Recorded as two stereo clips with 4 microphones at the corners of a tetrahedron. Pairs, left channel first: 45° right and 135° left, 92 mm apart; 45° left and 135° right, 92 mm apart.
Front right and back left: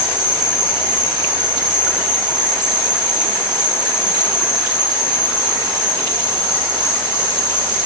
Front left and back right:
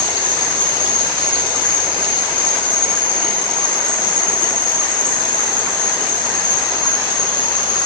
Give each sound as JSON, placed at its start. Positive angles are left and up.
{"t": 0.0, "sound": "an insect", "azimuth_deg": 10, "distance_m": 0.7}